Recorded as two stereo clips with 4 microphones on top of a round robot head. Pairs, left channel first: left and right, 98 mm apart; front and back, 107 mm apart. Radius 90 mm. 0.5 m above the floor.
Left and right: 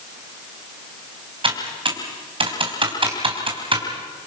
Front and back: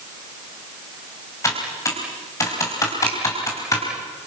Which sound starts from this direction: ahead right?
Typing on a keyboard, at 1.4 s.